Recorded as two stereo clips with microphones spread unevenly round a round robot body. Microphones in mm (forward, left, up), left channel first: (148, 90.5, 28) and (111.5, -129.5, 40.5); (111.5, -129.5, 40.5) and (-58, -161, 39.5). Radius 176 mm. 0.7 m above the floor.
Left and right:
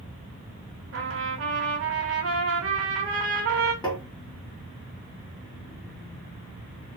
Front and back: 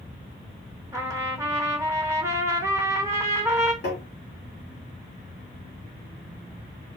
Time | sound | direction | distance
0.9 | a trumpet | 95° right | 1.1 m
3.8 | tapping | 10° left | 1.5 m